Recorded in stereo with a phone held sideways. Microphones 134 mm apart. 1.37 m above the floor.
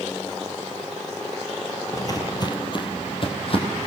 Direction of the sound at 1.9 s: 25° left (ahead or behind).